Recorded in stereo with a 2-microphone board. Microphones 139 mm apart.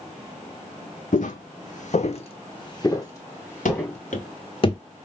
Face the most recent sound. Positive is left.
turn(degrees=30)  # may be behind; listen again after turning